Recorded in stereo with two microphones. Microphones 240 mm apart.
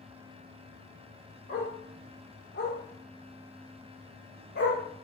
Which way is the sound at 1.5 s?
35° left (ahead or behind).